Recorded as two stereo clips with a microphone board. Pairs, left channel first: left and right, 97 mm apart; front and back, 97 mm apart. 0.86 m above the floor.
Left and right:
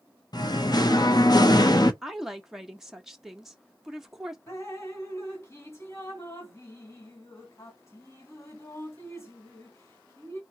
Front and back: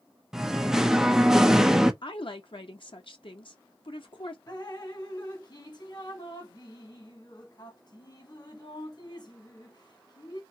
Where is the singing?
100° left, 0.6 m.